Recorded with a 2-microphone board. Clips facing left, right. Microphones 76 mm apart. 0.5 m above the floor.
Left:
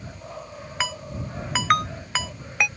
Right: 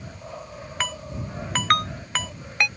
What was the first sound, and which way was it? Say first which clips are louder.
A ringtone: left 1 dB; 5° left (ahead or behind).